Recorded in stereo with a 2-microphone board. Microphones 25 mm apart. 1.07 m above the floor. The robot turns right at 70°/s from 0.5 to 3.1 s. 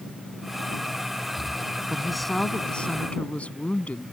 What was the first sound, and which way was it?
A woman speaking, 20° right.